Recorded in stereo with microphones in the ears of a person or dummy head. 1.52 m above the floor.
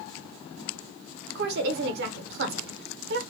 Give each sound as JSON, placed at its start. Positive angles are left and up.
{"t": 1.4, "sound": "a woman speaking", "side_deg": -60, "distance_m": 0.8}